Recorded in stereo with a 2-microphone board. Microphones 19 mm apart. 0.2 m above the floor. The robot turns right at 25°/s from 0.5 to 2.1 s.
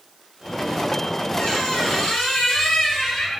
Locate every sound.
1.4 s a squeak: 70° left (ahead or behind), 3 m; by 3.4 s 60° left (ahead or behind), 3 m